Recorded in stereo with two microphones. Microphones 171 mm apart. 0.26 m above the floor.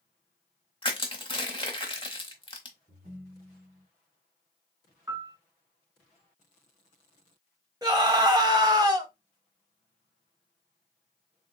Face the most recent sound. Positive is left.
turn(degrees=-20)  # may be behind; listen again after turning